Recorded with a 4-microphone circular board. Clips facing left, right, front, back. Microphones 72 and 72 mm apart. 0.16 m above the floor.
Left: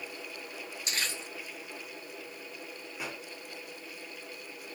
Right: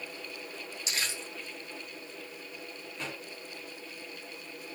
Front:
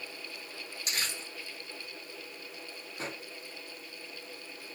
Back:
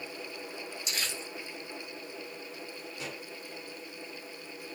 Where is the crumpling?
40° left, 4.5 m.